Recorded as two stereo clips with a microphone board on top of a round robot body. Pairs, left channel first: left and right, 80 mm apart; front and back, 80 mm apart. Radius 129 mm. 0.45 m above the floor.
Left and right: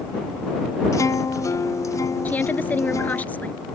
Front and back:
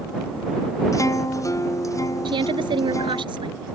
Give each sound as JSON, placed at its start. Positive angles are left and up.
{"t": 0.9, "sound": "a guitar", "azimuth_deg": 45}
{"t": 2.2, "sound": "a woman speaking", "azimuth_deg": 160}